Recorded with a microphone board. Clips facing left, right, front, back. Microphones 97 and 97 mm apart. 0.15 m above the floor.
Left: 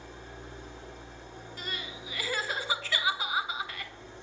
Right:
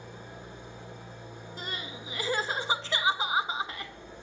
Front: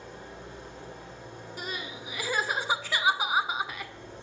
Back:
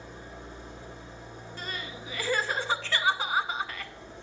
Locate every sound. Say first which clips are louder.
0.0 s an engine running: right 1 dB, front 1 dB; 15° right, 3 m
1.6 s crying: right 1 dB, front 1 dB; 60° right, 0.6 m